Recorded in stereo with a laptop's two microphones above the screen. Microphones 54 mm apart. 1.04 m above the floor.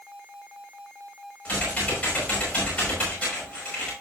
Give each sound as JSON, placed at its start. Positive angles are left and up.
{"t": 1.4, "sound": "typing on a keyboard", "side_deg": 25, "distance_m": 4.5}